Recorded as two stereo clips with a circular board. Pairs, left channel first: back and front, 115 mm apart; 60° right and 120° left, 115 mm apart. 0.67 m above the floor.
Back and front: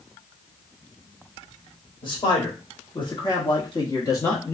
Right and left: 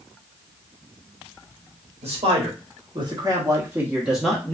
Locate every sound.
2.0 s a man speaking: 140° left, 1.4 m; by 4.5 s 130° right, 0.9 m